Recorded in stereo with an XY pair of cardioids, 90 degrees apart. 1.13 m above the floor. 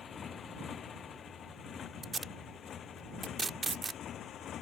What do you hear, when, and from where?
0.0 s a motorcycle: 55° left; by 4.6 s 70° left
2.0 s tape being pulled: 30° right